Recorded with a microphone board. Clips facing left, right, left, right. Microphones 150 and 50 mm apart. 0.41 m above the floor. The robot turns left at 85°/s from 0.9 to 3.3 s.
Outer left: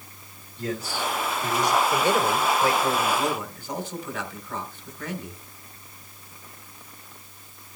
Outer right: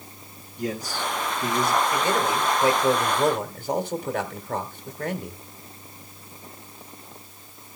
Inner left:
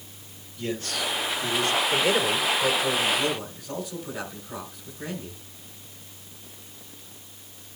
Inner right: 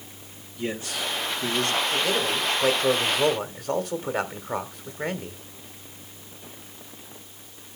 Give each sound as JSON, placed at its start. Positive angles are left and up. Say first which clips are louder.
{"t": 0.6, "sound": "a man speaking", "louder": "even, even", "azimuth_deg": -20, "distance_m": 2.0}
{"t": 1.9, "sound": "a man speaking", "louder": "outer left 1 dB, inner left 2 dB", "azimuth_deg": 30, "distance_m": 1.6}